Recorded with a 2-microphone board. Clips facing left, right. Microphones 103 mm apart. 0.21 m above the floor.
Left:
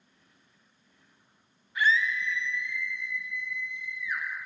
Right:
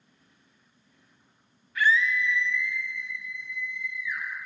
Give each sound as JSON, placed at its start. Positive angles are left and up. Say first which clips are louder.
{"t": 1.8, "sound": "a scream", "louder": "right 2 dB", "side_deg": 20, "distance_m": 1.0}